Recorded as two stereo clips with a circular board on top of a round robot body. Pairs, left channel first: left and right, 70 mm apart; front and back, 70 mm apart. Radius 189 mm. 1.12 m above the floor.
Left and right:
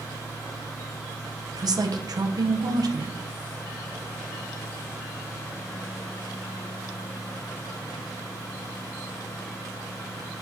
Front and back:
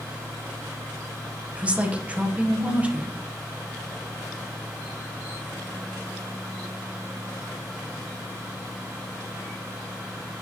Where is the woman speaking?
110° right, 1.2 m.